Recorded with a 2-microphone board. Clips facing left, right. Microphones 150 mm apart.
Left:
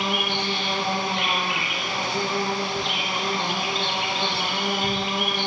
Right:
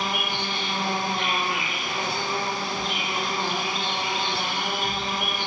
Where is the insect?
80° left, 4.5 m.